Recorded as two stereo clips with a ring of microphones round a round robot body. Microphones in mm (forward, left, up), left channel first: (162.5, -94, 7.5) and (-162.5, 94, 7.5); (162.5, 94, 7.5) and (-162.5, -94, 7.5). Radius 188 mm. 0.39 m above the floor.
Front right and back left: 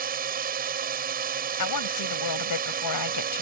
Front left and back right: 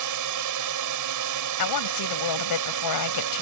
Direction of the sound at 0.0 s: 150° right.